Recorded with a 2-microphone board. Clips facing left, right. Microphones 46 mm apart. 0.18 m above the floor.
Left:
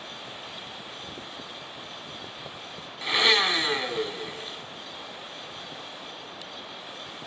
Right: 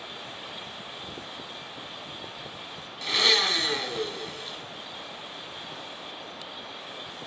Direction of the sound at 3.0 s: 20° left (ahead or behind).